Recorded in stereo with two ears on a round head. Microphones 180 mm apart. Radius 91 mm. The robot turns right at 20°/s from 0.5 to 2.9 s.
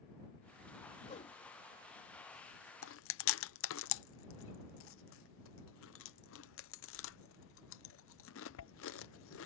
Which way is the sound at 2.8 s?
75° left (ahead or behind).